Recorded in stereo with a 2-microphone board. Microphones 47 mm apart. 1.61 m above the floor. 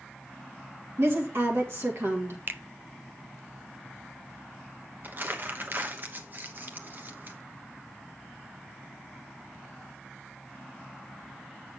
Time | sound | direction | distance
1.0 | a woman speaking | 60° right (ahead or behind) | 1.7 m
2.5 | a finger snap | 45° right (ahead or behind) | 0.6 m
5.0 | crumpling | 45° right (ahead or behind) | 1.0 m